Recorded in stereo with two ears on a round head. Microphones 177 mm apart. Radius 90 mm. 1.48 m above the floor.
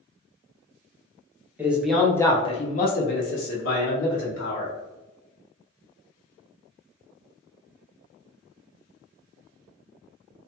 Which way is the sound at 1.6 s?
10° right (ahead or behind).